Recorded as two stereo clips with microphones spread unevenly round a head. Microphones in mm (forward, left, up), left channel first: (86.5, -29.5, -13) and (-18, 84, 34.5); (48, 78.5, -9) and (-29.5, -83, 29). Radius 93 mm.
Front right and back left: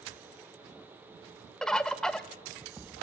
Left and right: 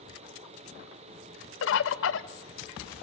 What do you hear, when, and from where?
1.6 s a bird: 50° left, 0.7 m